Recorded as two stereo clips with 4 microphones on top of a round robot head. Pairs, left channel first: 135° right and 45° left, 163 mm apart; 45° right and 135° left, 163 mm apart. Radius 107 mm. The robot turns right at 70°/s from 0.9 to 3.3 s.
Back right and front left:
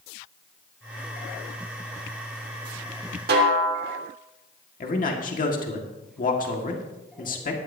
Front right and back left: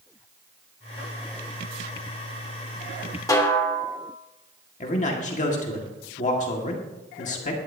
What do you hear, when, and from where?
3.3 s a snare drum: 25° left, 1.7 m
4.8 s a man speaking: 95° right, 1.8 m